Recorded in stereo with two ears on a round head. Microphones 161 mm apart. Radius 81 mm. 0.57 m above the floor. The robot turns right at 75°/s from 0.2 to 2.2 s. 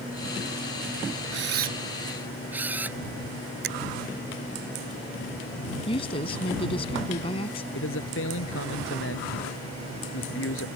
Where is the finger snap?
65° right (ahead or behind).